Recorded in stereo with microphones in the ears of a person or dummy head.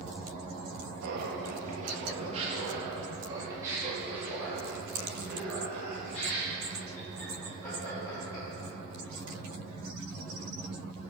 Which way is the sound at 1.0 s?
60° right (ahead or behind).